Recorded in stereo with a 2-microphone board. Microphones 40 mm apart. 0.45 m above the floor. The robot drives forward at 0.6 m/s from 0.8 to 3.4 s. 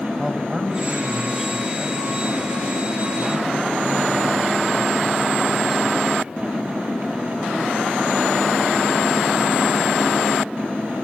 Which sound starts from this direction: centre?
A man speaking, at 0.2 s.